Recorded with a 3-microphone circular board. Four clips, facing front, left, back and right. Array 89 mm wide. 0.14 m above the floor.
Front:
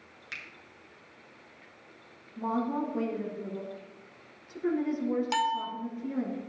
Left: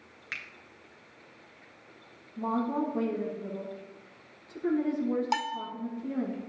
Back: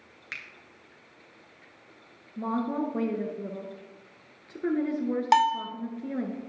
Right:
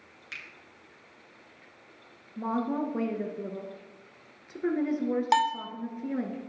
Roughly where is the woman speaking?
Behind right.